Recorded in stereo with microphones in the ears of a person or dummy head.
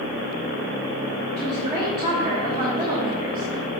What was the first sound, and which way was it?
A woman speaking, 30° right (ahead or behind).